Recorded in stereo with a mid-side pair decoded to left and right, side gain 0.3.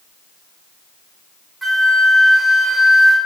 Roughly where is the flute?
Ahead.